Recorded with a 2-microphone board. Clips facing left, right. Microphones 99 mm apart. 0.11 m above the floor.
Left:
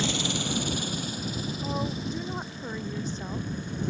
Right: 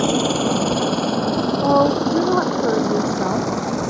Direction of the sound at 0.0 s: 45° right (ahead or behind).